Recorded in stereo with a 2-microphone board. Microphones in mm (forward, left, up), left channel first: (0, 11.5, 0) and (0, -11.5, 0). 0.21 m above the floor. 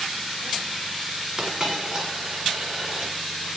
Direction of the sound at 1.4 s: 25° right (ahead or behind).